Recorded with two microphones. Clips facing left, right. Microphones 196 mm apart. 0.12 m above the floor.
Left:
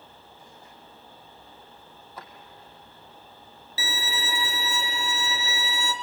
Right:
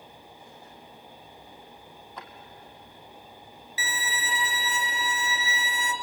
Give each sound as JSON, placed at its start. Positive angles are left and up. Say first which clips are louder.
{"t": 2.2, "sound": "a drawer", "louder": "even", "side_deg": 10, "distance_m": 2.5}
{"t": 3.8, "sound": "a violin", "louder": "left 2 dB", "side_deg": 40, "distance_m": 1.9}